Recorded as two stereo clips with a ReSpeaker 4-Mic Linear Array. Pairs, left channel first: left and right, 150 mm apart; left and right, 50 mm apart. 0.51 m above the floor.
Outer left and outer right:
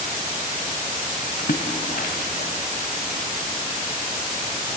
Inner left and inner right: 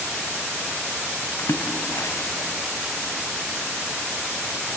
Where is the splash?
85° left, 0.9 m.